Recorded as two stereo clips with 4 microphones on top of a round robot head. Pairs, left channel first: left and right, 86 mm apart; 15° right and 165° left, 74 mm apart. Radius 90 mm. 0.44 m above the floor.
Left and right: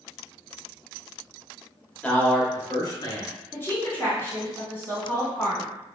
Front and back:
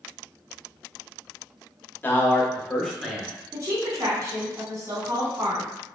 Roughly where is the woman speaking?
Behind left.